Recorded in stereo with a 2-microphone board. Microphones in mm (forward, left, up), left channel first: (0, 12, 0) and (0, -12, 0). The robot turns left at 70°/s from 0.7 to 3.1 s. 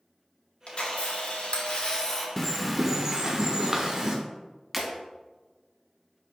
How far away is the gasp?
No gasp in this recording.